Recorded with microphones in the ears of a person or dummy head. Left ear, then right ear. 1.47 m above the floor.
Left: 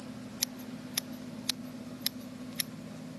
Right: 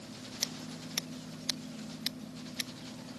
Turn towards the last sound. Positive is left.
turn(degrees=5)  # may be behind; listen again after turning